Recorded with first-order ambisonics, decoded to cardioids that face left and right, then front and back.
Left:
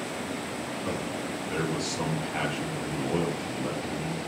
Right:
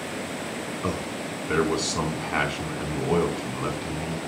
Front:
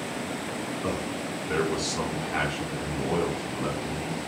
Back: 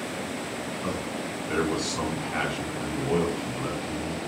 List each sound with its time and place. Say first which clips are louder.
0.8 s a man speaking: right 3 dB, front 1 dB; 90° right, 4.5 m